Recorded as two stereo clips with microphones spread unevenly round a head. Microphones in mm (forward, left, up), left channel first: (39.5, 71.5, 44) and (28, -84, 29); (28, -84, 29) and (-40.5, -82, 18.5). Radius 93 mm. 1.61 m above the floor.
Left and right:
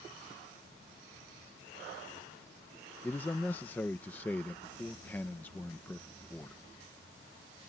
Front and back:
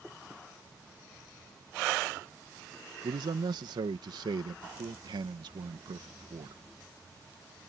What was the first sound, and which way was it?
A man speaking, 165° left.